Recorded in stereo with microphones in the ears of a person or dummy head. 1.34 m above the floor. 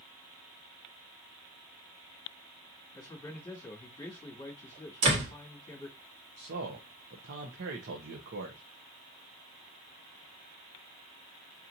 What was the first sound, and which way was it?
A man speaking, 15° left (ahead or behind).